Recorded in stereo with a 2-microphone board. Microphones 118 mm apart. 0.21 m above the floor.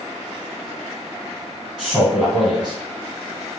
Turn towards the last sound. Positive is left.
turn(degrees=-10)  # may be behind; listen again after turning